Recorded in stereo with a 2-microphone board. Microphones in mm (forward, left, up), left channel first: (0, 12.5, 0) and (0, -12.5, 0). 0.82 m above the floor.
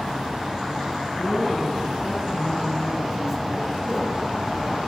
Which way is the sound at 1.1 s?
35° left (ahead or behind).